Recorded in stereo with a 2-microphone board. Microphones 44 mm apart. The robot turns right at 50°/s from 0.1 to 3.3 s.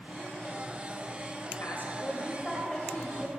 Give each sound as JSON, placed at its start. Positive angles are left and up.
{"t": 1.6, "sound": "a woman speaking", "azimuth_deg": 115, "distance_m": 1.9}